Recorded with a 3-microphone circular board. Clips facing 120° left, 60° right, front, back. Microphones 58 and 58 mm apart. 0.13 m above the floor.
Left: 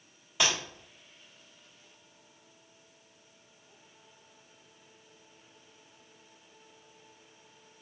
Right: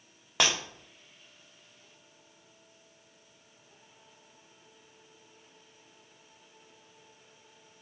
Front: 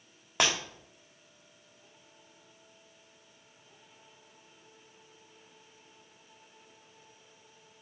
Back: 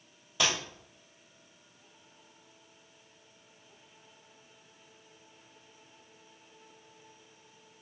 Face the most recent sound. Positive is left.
turn(degrees=-30)